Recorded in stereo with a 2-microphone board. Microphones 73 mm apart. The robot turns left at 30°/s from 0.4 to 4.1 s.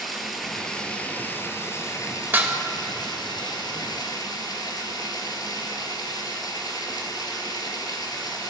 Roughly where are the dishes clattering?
Right.